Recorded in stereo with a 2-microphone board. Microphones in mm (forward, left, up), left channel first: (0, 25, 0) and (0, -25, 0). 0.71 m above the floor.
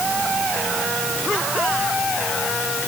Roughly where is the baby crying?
No baby crying in this recording.